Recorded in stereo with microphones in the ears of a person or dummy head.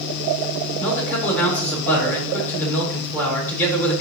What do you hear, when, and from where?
0.8 s a man speaking: 10° left (ahead or behind), 3.5 m